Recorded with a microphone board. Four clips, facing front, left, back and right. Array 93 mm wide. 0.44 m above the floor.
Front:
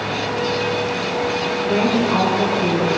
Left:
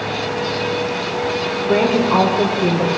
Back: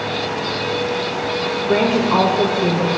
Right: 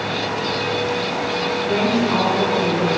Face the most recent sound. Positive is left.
turn(degrees=125)